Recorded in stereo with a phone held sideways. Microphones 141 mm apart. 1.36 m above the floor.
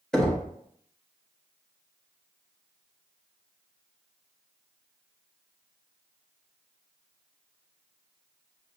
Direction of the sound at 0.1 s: 5° left (ahead or behind).